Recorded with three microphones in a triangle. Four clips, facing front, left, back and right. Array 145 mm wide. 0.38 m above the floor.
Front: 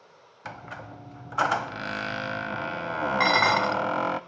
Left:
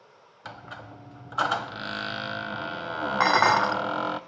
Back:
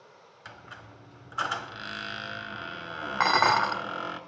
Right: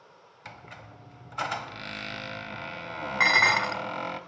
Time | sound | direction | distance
0.5 | a squeak | 20° left | 0.9 m
3.2 | dishes clattering | 105° left | 0.8 m